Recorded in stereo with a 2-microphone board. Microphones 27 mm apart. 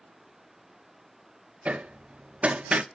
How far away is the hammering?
About 1.0 m.